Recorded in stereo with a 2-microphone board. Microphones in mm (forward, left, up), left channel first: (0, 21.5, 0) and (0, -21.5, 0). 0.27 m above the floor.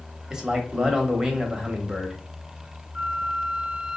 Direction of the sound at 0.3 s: 15° right (ahead or behind).